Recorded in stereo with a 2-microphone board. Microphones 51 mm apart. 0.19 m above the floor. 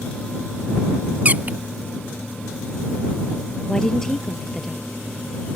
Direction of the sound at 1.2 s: 35° right (ahead or behind).